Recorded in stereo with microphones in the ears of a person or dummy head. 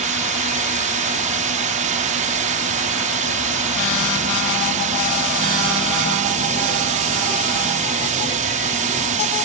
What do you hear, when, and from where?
0.0 s a drone: 40° right (ahead or behind)